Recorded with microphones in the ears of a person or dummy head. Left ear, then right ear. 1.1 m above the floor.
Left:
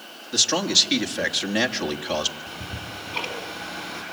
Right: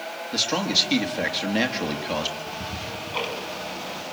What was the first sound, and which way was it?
A man speaking, 10° left (ahead or behind).